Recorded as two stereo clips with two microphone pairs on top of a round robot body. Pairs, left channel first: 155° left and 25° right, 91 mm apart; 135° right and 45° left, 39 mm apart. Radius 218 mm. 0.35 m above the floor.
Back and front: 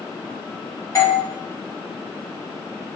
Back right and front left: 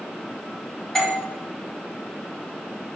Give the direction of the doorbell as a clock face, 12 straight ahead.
7 o'clock.